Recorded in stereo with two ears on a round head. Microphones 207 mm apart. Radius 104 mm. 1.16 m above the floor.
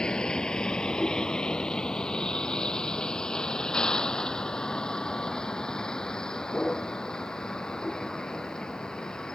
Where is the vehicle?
5° left (ahead or behind).